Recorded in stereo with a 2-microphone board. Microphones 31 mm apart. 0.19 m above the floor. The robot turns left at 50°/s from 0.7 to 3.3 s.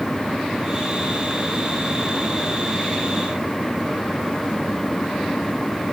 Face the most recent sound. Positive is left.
No sound to turn to.